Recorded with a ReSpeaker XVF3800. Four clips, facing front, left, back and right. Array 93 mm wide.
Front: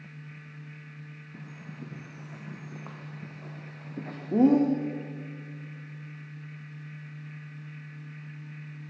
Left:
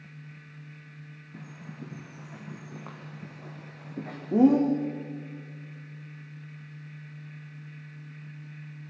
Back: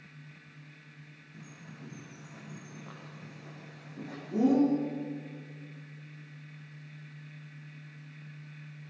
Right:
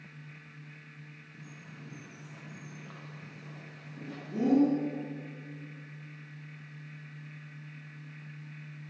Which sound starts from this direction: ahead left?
A bird, at 1.3 s.